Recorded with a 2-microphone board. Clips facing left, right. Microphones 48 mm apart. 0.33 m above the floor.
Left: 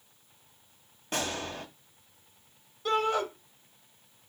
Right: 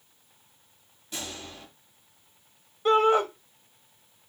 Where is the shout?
30° right (ahead or behind), 1.4 m.